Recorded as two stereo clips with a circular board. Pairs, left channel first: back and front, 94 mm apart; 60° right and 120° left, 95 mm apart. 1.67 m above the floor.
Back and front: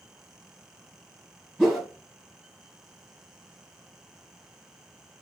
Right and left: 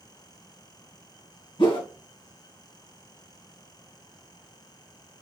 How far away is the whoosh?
About 1.1 m.